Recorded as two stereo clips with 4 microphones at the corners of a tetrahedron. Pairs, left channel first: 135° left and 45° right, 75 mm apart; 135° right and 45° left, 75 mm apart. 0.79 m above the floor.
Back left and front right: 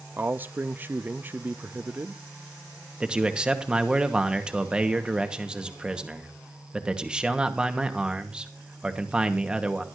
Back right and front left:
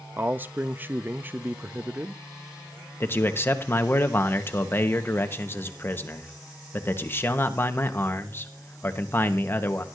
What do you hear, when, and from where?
0.2 s a man speaking: straight ahead, 0.5 m
3.0 s a man speaking: 110° right, 1.0 m